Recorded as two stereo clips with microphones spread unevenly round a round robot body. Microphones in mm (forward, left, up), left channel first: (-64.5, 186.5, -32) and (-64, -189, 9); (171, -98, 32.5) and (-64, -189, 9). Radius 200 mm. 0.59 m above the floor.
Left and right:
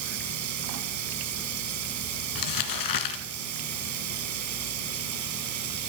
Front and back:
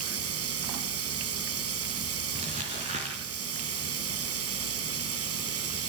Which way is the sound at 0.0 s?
135° right.